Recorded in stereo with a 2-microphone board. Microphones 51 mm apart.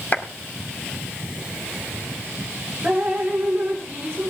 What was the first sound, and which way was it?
A clap, 35° left (ahead or behind).